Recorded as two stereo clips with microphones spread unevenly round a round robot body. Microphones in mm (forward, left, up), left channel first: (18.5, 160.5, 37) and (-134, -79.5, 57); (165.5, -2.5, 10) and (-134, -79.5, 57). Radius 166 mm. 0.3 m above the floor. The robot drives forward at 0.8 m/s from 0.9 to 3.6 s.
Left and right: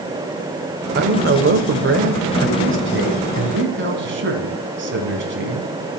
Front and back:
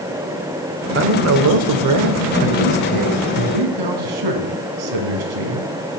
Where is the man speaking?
130° right, 0.9 m; by 5.7 s 170° right, 2.5 m.